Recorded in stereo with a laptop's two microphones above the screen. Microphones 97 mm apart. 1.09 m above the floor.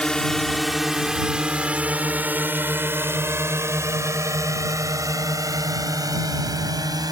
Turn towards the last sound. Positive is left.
turn(degrees=-45)  # may be behind; listen again after turning